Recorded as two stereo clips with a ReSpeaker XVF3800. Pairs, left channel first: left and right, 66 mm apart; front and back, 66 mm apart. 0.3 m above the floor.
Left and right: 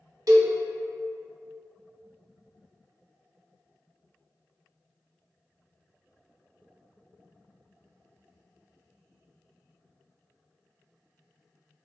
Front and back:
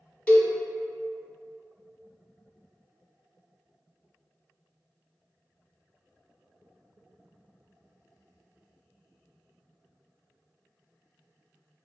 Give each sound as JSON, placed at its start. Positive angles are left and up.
{"t": 0.3, "sound": "a cowbell", "azimuth_deg": -70, "distance_m": 0.7}